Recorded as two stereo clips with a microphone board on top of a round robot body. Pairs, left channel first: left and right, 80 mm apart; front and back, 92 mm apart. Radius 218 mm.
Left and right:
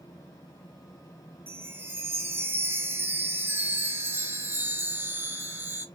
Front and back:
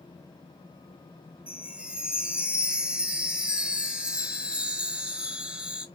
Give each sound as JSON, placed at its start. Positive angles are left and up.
{"t": 1.5, "sound": "a chime", "azimuth_deg": -115, "distance_m": 0.9}